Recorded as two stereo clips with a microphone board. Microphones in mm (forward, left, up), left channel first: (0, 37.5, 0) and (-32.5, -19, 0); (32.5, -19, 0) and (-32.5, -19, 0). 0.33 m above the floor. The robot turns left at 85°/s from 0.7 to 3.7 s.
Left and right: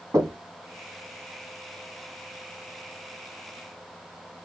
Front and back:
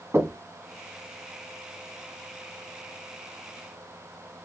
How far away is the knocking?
About 1.7 m.